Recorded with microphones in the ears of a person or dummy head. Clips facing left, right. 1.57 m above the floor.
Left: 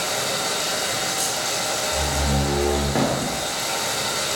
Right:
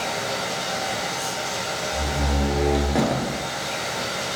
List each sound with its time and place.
0.0 s running water: 60° left (ahead or behind), 5.5 m
1.9 s a door slam: 5° left (ahead or behind), 3 m